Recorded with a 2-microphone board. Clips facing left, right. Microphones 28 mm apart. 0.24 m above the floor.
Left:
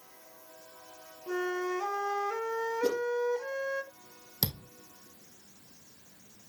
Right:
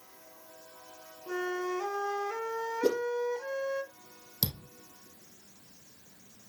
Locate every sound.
1.3 s a flute: 15° left (ahead or behind), 1.1 m
2.8 s a whoosh: 40° right (ahead or behind), 2.5 m
4.4 s a thud: 20° left (ahead or behind), 2.5 m